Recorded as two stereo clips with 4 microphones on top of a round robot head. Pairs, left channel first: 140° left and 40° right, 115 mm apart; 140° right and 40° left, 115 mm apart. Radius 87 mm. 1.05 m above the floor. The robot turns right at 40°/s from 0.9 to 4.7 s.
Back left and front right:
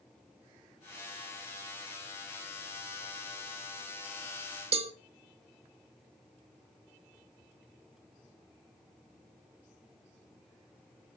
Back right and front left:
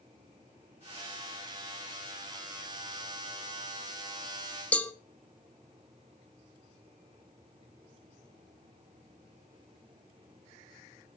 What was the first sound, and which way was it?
A cowbell, 65° right.